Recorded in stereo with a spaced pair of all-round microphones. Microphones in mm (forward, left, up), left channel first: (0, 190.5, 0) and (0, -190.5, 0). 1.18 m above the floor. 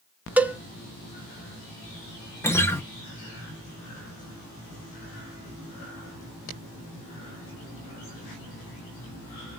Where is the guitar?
5° left (ahead or behind), 0.7 m.